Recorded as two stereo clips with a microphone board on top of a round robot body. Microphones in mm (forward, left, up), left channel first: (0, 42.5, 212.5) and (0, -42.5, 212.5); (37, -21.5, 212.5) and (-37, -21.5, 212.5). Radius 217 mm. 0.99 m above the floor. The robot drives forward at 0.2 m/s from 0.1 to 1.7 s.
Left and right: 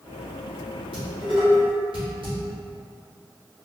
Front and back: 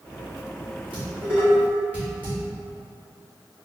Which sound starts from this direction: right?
Dishes clattering, at 0.9 s.